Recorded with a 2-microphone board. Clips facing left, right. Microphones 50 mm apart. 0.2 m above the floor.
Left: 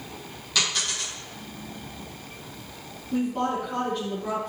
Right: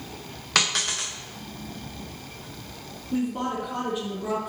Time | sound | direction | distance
0.6 | a dropped coin | 60° right (ahead or behind) | 2 m
3.1 | a woman speaking | 10° right (ahead or behind) | 2 m